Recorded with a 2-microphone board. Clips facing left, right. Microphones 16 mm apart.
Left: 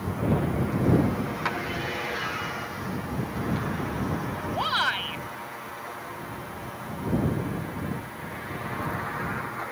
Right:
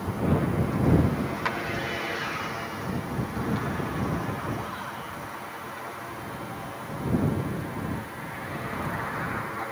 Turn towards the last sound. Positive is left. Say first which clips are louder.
# left 9 dB
turn(degrees=65)  # may be behind; listen again after turning